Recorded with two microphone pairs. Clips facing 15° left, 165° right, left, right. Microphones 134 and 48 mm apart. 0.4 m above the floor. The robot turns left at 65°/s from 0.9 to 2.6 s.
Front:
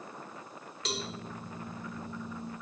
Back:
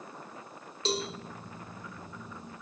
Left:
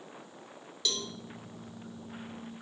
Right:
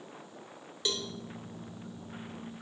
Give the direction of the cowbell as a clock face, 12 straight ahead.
4 o'clock.